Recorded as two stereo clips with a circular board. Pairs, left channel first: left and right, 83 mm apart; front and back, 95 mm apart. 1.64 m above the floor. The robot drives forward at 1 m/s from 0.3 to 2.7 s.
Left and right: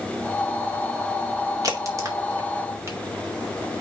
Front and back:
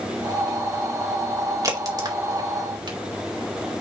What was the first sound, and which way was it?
A crack, 130° right.